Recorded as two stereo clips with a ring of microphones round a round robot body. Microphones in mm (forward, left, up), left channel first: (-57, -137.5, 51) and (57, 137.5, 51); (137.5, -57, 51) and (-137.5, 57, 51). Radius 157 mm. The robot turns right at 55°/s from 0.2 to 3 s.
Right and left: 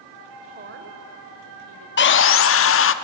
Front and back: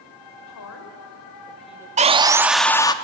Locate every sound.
0.5 s a woman speaking: straight ahead, 3 m; by 1.9 s 80° left, 3 m
2.0 s sawing: 145° right, 0.9 m; by 2.9 s 90° right, 0.9 m